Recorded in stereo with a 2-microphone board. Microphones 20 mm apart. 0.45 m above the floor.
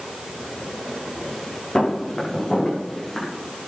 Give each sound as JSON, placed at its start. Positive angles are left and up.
{"t": 1.8, "sound": "footsteps", "side_deg": 30, "distance_m": 6.5}